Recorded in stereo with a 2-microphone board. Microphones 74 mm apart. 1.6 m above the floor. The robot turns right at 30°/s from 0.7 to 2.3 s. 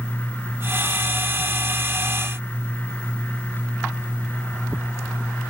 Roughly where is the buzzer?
I don't hear a buzzer.